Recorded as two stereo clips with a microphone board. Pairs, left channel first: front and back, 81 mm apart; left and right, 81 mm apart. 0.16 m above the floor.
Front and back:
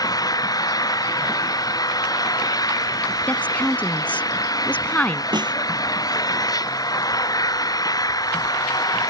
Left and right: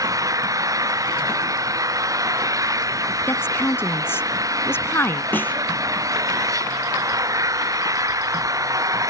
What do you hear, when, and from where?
0.0 s an engine running: 40° right
3.3 s a woman speaking: 60° left
5.3 s a snare drum: 155° left